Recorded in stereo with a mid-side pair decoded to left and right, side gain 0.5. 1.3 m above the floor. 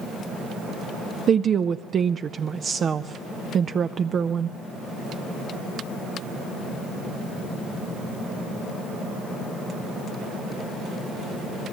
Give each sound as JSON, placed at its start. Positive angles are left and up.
{"t": 1.3, "sound": "a woman speaking", "azimuth_deg": -45, "distance_m": 0.5}